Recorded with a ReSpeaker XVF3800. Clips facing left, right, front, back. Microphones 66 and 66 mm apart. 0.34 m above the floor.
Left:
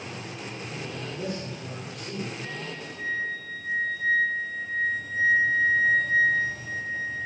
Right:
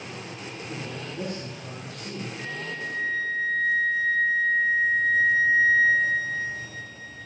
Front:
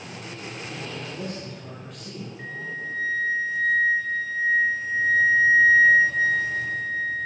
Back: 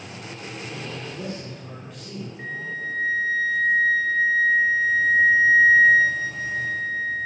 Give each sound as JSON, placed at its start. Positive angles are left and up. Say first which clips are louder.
{"t": 0.7, "sound": "a man speaking", "louder": "right 2 dB, even", "azimuth_deg": -95, "distance_m": 4.0}
{"t": 2.4, "sound": "a flute", "louder": "right 3 dB, back 2 dB", "azimuth_deg": -105, "distance_m": 6.0}